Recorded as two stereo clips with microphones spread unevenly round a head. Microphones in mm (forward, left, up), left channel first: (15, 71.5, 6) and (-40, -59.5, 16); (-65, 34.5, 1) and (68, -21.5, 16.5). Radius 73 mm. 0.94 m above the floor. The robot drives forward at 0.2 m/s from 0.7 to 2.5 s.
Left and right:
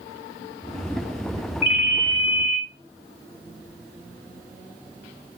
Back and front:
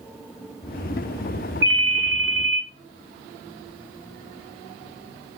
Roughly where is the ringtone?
Ahead right.